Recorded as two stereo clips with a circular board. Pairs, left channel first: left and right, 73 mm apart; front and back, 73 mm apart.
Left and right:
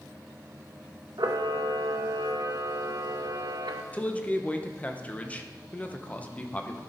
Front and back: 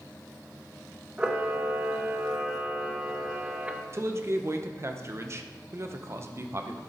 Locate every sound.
1.2 s a camera shutter: 110° right, 0.6 m
3.9 s a man speaking: 150° left, 0.7 m